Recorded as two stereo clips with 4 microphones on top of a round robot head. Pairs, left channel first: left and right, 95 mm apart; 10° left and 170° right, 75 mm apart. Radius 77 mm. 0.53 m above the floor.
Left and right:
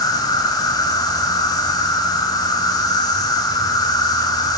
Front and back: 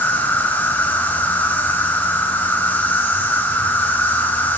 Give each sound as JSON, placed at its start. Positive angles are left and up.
{"t": 0.0, "sound": "an insect", "azimuth_deg": 65, "distance_m": 2.0}